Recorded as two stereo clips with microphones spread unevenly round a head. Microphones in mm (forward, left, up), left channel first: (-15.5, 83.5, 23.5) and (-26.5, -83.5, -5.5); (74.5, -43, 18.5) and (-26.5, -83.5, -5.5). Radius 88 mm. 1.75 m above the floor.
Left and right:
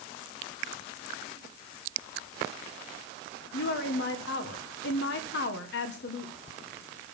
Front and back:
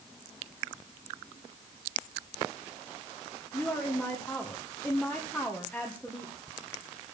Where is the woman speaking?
105° left, 1.6 m.